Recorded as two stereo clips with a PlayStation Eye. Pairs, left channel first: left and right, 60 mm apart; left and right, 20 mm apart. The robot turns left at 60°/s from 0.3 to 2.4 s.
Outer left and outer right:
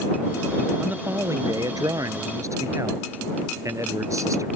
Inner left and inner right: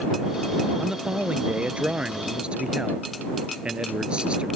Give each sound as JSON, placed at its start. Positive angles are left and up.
{"t": 0.8, "sound": "a man speaking", "azimuth_deg": -20}